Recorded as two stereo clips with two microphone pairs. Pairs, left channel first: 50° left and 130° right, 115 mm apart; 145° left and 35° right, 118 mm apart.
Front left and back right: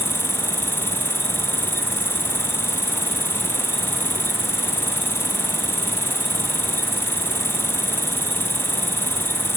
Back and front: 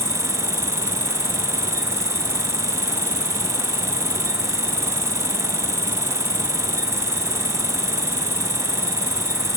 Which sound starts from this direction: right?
An insect, at 0.0 s.